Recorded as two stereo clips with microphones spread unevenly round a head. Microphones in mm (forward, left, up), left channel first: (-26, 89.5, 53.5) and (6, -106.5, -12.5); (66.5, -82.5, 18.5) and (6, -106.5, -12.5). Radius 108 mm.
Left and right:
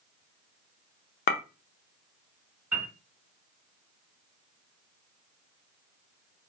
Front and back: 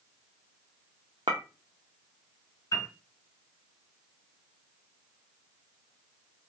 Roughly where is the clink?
Behind left.